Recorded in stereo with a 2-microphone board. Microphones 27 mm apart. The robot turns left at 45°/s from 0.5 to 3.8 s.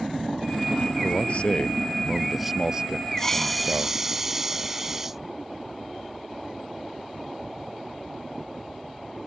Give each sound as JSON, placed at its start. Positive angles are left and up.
{"t": 1.0, "sound": "a man speaking", "azimuth_deg": 60}
{"t": 3.2, "sound": "a hiss", "side_deg": 15}